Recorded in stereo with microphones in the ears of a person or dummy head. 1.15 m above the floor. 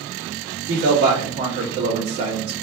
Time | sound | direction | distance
0.7 | a man speaking | 60° right (ahead or behind) | 2.5 m